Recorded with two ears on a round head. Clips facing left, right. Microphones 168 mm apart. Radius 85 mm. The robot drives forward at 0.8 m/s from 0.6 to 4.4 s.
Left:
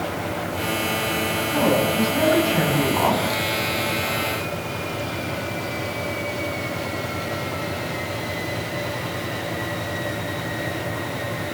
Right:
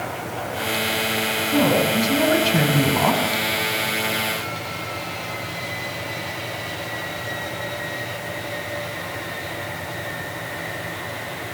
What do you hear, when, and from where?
1.5 s a woman speaking: 35° right (ahead or behind), 7.5 m; by 3.2 s 40° right (ahead or behind), 6.5 m